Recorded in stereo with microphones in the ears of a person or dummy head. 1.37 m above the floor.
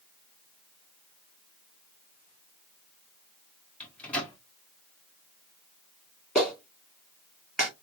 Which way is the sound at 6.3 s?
Centre (ahead or behind).